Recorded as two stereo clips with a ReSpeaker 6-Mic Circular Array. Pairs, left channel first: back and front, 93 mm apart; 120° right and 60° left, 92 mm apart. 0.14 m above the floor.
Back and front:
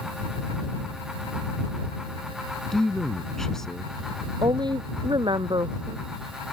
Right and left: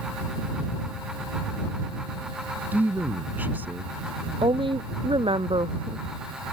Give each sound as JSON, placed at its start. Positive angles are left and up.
{"t": 2.7, "sound": "a man speaking", "azimuth_deg": 100}
{"t": 4.4, "sound": "a woman speaking", "azimuth_deg": 35}